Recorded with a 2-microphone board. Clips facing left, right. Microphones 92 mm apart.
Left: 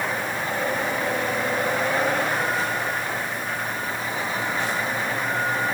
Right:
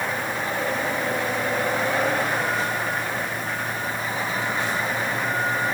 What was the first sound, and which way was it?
Only background noise.